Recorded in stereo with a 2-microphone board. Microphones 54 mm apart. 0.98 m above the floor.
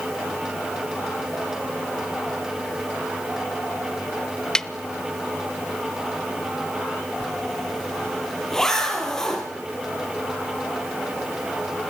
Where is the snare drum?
15° left (ahead or behind), 0.8 m.